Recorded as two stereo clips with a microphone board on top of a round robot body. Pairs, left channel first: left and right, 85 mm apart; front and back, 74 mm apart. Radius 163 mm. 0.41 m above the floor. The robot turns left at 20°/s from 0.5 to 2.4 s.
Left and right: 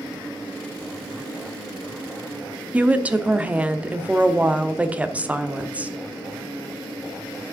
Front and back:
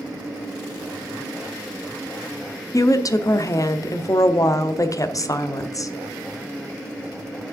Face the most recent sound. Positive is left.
turn(degrees=-20)